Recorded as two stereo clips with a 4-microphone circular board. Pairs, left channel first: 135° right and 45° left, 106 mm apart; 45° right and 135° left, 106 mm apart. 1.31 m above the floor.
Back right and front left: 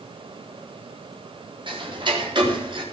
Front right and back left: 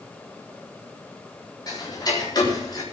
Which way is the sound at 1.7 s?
5° left.